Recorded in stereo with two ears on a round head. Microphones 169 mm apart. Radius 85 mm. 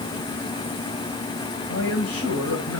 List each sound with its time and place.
1.7 s a man speaking: 85° left, 4.5 m